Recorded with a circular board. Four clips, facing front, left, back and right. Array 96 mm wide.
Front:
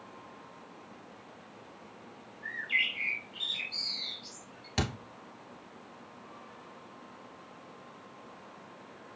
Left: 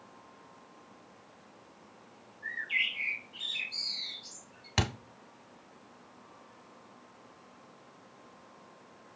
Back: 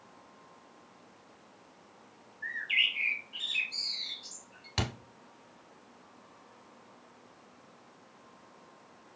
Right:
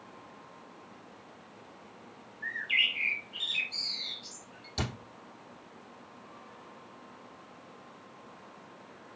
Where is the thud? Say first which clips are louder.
Left 3 dB, front 2 dB; 95° left, 1.0 m.